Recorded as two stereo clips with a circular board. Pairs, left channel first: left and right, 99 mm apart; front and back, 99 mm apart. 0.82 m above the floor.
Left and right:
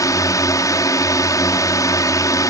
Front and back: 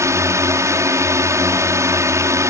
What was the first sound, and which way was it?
A drone, 130° left.